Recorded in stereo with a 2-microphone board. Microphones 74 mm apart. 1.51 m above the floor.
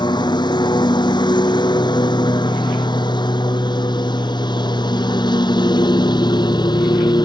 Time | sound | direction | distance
0.0 | a lawn mower | 80° left | ?